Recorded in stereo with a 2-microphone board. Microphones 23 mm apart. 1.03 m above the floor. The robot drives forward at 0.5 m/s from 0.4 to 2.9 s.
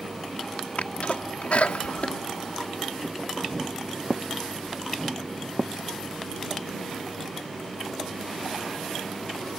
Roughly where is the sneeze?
Left.